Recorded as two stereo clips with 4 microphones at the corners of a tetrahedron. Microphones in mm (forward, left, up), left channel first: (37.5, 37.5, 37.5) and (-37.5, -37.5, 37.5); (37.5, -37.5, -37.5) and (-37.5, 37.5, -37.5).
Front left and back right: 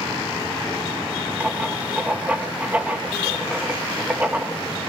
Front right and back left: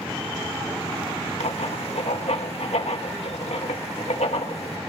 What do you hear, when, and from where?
1.4 s writing: 60° right, 1.6 m